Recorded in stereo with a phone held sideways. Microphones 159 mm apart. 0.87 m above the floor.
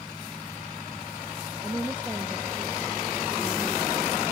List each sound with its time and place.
1.6 s a woman speaking: 10° right (ahead or behind)